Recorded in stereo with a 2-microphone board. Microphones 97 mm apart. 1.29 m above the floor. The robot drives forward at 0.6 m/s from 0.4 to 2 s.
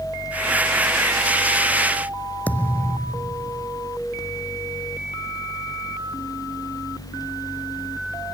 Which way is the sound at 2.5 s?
15° left (ahead or behind).